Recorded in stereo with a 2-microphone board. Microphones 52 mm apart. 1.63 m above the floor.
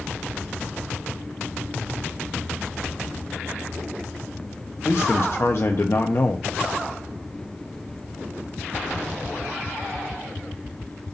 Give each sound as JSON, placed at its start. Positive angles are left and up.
{"t": 4.8, "sound": "a man speaking", "side_deg": 55, "distance_m": 0.7}